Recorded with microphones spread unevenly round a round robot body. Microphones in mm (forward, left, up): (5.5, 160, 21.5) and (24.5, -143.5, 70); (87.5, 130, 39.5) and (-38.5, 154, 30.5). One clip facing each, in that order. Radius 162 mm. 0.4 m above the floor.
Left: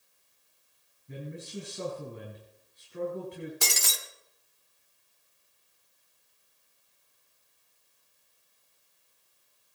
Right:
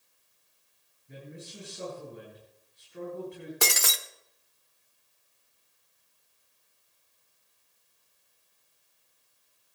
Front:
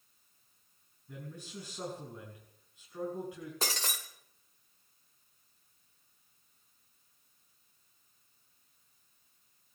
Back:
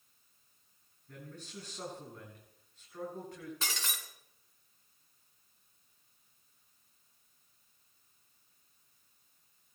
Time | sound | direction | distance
1.1 | a man speaking | 75° left | 5.5 m
3.6 | breaking glass | 65° right | 0.8 m